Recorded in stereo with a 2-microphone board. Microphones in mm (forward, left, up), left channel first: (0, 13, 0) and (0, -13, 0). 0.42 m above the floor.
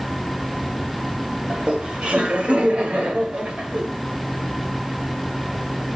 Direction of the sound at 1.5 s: 50° right (ahead or behind).